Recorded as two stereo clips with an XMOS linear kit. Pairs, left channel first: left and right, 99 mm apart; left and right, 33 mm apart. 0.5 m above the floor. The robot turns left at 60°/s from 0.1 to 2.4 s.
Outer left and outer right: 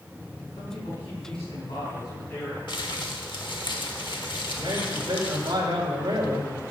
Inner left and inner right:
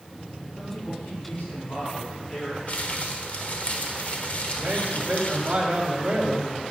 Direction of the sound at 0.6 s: 125° left.